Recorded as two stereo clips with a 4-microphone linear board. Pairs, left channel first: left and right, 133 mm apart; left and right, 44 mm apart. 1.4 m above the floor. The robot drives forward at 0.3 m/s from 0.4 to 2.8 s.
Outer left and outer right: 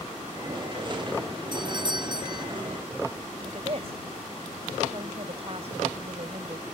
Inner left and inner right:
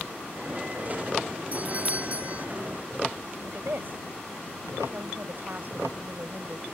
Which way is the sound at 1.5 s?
35° right (ahead or behind).